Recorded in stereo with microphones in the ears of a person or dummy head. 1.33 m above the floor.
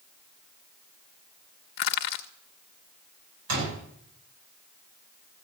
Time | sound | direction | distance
1.8 | crushing | 40° left (ahead or behind) | 0.8 m
3.5 | a door slam | 85° right | 10 m